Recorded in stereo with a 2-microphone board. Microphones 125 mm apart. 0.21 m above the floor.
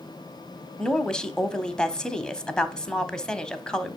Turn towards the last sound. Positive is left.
turn(degrees=5)  # may be behind; listen again after turning